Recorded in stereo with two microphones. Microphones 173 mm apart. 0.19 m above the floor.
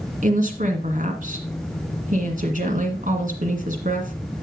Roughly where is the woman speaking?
Right.